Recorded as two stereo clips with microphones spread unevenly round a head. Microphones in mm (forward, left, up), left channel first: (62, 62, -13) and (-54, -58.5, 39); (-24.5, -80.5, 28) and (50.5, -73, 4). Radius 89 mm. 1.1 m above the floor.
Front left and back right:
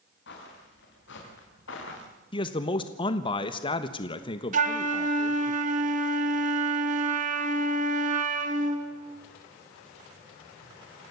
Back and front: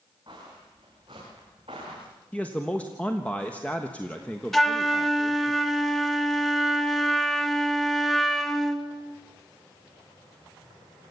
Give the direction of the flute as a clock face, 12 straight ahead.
3 o'clock.